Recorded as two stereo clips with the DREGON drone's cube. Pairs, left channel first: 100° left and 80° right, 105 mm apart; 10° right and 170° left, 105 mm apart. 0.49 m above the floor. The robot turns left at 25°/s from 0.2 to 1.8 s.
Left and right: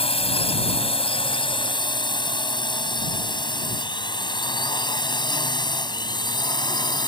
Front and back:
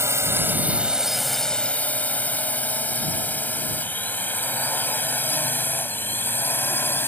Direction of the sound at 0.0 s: 110° left.